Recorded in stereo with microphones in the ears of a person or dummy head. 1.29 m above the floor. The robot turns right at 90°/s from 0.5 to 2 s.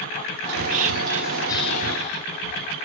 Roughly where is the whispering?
Right.